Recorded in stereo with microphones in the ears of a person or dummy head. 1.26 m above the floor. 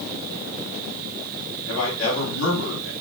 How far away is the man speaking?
About 3.5 m.